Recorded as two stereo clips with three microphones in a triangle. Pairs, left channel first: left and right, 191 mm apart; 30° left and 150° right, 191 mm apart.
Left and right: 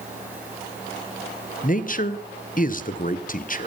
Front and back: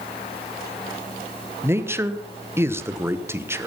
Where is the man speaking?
135° left, 1.1 m.